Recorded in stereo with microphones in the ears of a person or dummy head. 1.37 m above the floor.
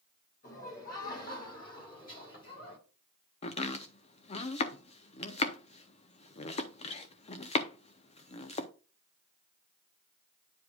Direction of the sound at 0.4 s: 45° left (ahead or behind).